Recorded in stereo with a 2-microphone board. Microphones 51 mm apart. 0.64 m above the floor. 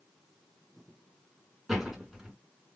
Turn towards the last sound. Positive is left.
turn(degrees=-10)  # may be behind; listen again after turning